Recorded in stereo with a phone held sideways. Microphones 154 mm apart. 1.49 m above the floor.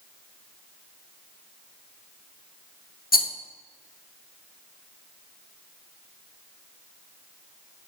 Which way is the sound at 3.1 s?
75° left (ahead or behind).